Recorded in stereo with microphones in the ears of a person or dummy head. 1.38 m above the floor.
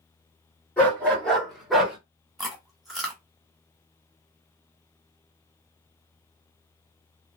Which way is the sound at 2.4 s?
Centre (ahead or behind).